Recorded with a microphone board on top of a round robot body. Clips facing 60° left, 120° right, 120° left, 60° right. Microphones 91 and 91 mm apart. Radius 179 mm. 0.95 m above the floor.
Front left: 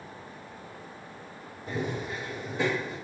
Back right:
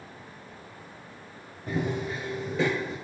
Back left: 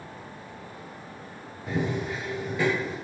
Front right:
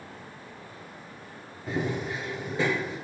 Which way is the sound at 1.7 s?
160° right.